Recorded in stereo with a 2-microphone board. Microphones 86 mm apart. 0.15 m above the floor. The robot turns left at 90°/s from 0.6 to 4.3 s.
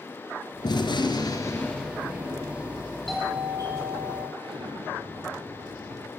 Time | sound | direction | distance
0.6 | a gunshot | 115° left | 3 m
3.1 | a doorbell | 5° left | 7 m
4.4 | an explosion | 85° right | 3.5 m